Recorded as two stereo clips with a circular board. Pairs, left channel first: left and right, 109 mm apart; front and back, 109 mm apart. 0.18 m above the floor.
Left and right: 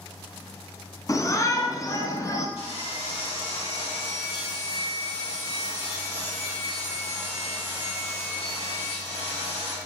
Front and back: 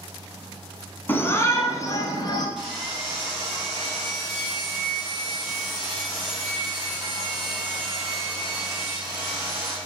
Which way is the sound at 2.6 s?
95° left.